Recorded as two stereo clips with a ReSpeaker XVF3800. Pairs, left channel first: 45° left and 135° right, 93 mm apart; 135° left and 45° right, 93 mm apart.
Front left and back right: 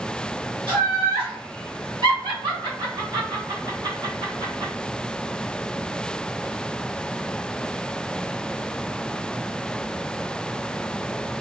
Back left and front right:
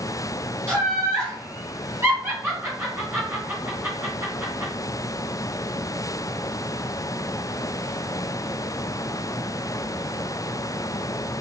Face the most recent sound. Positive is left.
turn(degrees=-105)